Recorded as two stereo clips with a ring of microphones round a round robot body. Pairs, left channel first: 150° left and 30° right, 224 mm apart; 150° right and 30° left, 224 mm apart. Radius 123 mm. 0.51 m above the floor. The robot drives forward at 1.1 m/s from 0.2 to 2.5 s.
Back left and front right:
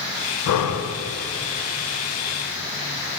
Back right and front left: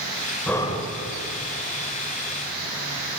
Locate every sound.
0.5 s breathing: 125° left, 0.5 m; by 0.9 s 150° left, 0.9 m